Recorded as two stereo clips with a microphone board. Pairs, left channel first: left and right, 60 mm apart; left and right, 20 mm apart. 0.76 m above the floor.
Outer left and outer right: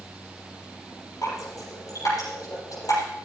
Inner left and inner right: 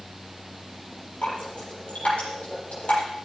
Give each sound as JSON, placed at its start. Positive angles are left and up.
{"t": 1.2, "sound": "dripping", "side_deg": 65, "distance_m": 8.0}